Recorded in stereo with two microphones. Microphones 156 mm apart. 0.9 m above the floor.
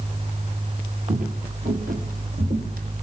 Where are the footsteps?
50° right (ahead or behind), 1.7 m; by 3.0 s 70° right (ahead or behind), 2.5 m.